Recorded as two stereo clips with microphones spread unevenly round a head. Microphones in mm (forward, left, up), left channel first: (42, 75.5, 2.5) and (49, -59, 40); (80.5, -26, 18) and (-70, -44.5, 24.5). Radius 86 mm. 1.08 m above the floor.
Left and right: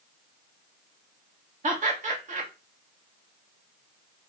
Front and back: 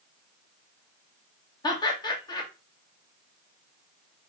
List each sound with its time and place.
1.6 s laughter: 50° right, 1.5 m